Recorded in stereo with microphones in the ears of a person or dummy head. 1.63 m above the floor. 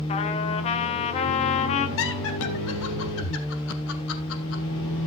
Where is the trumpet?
40° left (ahead or behind), 1.3 m.